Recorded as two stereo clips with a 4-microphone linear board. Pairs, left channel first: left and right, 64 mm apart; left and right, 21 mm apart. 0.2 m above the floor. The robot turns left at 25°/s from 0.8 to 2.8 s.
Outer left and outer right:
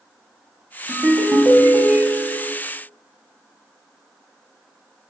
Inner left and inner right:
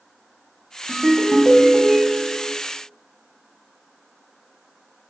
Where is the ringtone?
25° right (ahead or behind), 0.6 m; by 2.5 s 20° right (ahead or behind), 0.6 m.